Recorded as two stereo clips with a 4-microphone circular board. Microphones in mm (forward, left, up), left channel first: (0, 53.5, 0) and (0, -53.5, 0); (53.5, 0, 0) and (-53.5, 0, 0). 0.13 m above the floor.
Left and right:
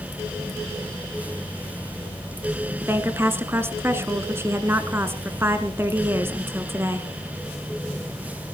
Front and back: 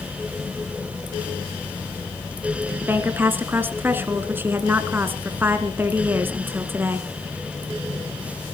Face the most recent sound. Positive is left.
turn(degrees=-130)